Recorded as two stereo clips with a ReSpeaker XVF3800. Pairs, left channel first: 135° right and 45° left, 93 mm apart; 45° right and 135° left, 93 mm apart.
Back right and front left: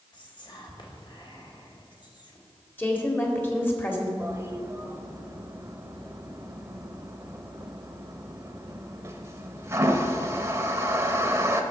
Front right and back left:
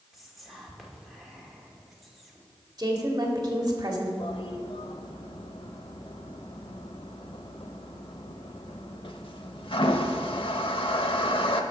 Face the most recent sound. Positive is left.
turn(degrees=-15)